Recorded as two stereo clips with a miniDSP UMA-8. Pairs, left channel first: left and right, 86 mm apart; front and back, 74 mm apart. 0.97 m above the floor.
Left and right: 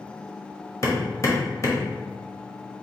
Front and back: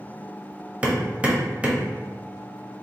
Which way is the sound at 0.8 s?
120° left.